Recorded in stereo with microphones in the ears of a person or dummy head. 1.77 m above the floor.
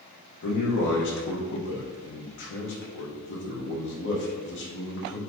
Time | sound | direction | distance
0.4 | a man speaking | 65° left (ahead or behind) | 0.9 m